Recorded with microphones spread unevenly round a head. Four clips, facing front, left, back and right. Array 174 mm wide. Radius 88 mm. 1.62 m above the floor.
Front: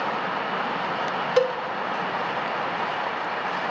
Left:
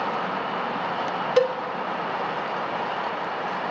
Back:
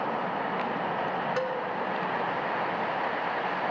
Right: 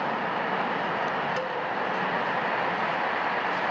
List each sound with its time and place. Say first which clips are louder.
1.4 s a cowbell: left 10 dB, front 8 dB; 50° left, 0.5 m